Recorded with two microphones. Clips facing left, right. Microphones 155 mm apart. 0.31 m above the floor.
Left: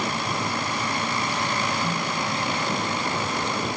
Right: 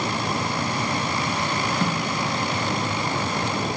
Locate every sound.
1.8 s a snare drum: 70° right (ahead or behind), 2 m